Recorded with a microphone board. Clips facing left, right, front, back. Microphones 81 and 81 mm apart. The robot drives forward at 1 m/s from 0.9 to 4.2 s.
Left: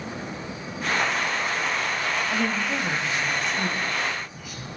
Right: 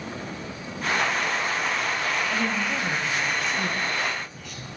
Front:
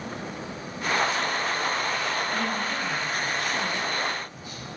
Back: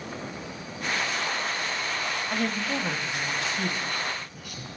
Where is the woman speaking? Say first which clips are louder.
Left 1 dB, even; 150° left, 0.9 m; by 4.7 s 175° left, 2.5 m.